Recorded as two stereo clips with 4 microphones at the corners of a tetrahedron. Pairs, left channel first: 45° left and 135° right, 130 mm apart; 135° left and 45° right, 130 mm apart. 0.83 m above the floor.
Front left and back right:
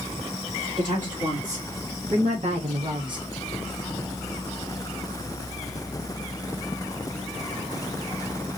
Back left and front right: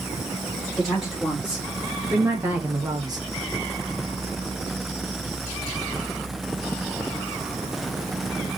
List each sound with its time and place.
0.8 s a woman speaking: 130° right, 2.5 m; by 3.2 s 90° right, 1.1 m